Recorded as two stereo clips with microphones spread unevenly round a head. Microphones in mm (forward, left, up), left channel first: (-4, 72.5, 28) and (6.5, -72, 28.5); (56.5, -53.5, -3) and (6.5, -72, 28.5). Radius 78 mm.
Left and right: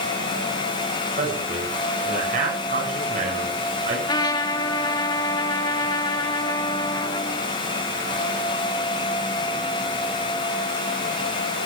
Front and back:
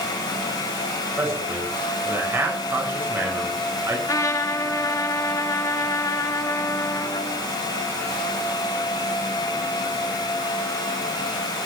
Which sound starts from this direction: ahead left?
A trumpet, at 4.1 s.